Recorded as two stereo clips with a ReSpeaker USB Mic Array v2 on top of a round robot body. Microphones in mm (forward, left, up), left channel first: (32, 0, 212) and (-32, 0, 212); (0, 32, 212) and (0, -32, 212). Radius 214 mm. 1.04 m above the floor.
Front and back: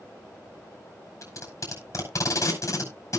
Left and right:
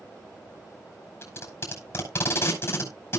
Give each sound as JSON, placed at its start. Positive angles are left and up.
{"t": 1.2, "sound": "tape being pulled", "azimuth_deg": 45, "distance_m": 5.5}